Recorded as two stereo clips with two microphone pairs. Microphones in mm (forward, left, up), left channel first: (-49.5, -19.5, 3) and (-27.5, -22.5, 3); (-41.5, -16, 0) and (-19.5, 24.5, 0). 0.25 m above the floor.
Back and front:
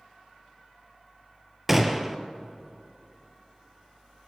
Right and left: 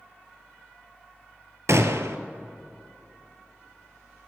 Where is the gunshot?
75° left, 0.8 m.